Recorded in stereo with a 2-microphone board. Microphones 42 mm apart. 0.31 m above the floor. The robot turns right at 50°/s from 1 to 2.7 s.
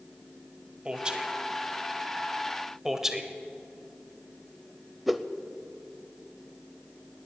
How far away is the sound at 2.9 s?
About 0.9 m.